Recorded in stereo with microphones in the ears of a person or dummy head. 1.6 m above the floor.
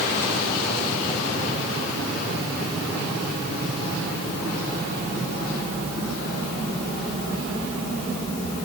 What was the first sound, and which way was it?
Only background noise.